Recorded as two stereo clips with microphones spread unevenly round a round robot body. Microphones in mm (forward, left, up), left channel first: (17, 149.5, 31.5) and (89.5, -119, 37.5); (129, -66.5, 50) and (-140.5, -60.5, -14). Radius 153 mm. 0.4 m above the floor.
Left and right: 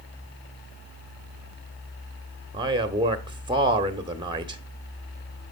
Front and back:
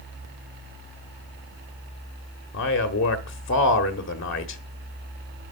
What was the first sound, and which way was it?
A man speaking, 15° right.